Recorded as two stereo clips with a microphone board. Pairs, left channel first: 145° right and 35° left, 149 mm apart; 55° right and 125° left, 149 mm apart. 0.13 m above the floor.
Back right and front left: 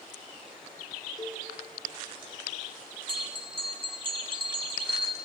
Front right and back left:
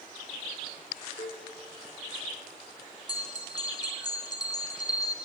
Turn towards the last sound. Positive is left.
turn(degrees=-5)